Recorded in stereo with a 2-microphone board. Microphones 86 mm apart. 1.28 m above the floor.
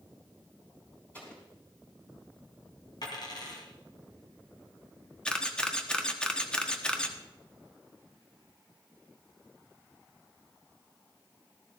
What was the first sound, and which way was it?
An explosion, 15° left (ahead or behind).